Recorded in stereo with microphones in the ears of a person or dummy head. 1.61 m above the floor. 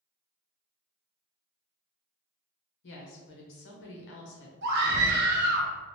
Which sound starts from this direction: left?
A woman speaking, at 2.8 s.